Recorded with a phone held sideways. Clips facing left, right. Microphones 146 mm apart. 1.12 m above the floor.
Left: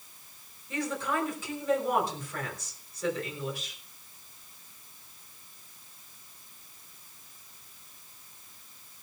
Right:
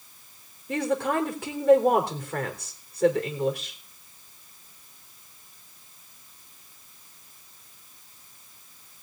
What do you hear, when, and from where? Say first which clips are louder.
0.7 s a woman speaking: right 6 dB; 65° right (ahead or behind), 3.5 m